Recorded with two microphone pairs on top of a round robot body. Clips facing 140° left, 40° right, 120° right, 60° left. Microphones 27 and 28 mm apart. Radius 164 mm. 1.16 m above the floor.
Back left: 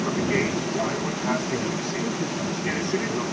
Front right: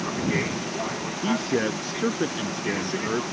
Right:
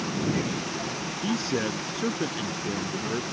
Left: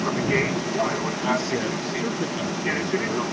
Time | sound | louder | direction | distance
0.0 | an aircraft | back left 2 dB, left 5 dB | 60° left | ?
1.2 | a man speaking | front right 4 dB, left 2 dB | 30° right | ?